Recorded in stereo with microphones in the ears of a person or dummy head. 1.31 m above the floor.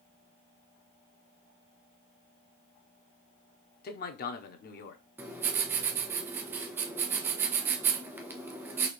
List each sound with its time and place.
3.8 s a man speaking: 45° left (ahead or behind), 0.7 m
5.2 s writing: 10° right (ahead or behind), 1.0 m